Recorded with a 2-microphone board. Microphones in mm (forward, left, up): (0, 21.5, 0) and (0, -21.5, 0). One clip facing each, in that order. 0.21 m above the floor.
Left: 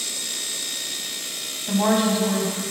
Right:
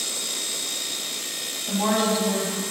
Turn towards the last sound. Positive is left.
turn(degrees=20)  # may be behind; listen again after turning